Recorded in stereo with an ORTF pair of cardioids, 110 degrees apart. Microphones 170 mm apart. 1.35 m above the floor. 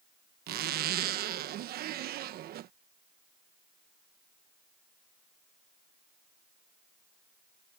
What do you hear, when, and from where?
0.5 s a zipper: 65° right